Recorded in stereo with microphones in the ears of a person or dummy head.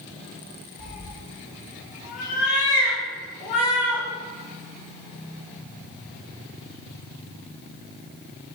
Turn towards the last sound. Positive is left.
turn(degrees=35)  # may be behind; listen again after turning